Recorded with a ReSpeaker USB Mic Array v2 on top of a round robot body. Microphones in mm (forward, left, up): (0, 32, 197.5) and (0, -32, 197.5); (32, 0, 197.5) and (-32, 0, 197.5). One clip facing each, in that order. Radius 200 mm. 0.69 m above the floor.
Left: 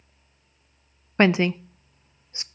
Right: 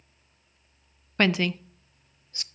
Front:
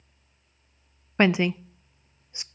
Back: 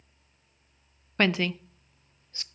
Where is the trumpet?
I don't hear a trumpet.